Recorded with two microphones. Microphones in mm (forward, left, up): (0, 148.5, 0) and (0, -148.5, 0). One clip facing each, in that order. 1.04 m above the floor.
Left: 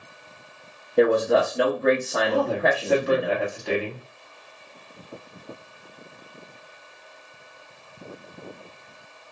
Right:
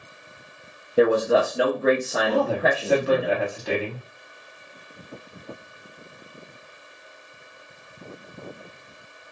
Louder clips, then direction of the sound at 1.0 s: Even; 5° right (ahead or behind).